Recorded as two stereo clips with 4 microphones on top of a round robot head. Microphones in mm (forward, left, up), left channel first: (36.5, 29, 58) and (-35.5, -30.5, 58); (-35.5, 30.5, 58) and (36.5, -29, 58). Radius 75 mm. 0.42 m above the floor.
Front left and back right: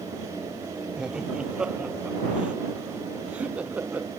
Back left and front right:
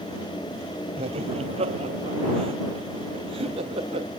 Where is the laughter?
55° right; by 4.1 s 65° right.